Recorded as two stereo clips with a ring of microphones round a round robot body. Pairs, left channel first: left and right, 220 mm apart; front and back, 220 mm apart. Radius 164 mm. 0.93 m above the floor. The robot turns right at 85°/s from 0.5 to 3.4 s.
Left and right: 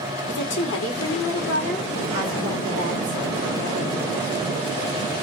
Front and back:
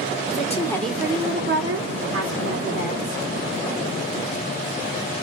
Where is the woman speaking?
60° left, 2.5 m; by 3.2 s 70° right, 2.5 m.